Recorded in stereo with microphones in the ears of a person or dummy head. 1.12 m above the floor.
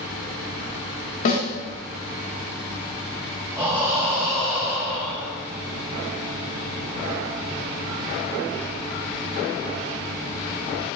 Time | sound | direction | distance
1.2 | a snare drum | 45° left (ahead or behind) | 0.8 m
3.6 | breathing | 15° right (ahead or behind) | 1.1 m